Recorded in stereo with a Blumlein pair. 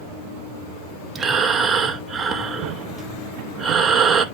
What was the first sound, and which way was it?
Breathing, 20° right.